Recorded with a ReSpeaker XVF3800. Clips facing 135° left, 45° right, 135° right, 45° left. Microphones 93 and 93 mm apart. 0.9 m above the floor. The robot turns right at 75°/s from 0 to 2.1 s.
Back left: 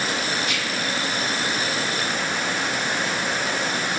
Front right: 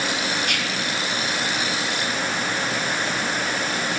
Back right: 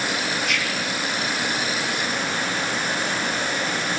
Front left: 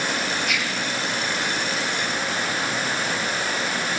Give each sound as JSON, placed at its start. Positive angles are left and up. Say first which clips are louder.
{"t": 0.4, "sound": "whispering", "louder": "even, even", "azimuth_deg": -45, "distance_m": 1.0}